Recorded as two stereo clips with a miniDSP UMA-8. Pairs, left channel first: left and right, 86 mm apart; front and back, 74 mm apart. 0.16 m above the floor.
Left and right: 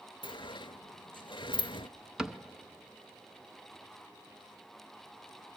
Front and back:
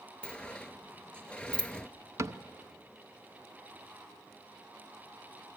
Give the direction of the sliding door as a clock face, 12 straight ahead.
9 o'clock.